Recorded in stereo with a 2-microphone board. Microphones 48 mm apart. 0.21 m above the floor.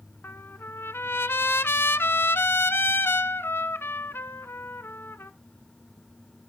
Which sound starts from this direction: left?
A trumpet, at 0.2 s.